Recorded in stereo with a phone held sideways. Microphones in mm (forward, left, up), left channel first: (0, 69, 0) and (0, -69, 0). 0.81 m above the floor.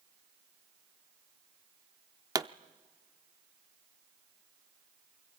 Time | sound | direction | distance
2.4 | a pop | 25° right (ahead or behind) | 0.6 m